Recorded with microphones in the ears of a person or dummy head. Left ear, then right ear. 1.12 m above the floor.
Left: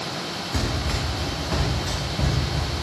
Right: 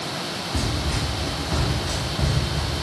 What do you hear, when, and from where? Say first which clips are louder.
0.5 s running footsteps: left 1 dB; 35° left (ahead or behind), 2.5 m; by 2.7 s 15° left (ahead or behind), 5.5 m